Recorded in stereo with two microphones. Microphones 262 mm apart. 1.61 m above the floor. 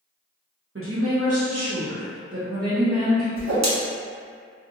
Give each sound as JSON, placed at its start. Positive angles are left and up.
{"t": 0.8, "sound": "a woman speaking", "side_deg": -55, "distance_m": 0.9}
{"t": 3.4, "sound": "a whoosh", "side_deg": -85, "distance_m": 0.8}